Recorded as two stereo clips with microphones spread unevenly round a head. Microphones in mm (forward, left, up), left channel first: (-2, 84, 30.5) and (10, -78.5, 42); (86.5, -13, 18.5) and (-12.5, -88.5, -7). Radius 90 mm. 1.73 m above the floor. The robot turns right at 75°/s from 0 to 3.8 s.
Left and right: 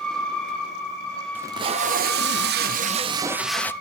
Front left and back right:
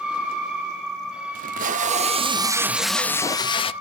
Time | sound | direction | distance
1.4 | tape being pulled | 160° right | 0.5 m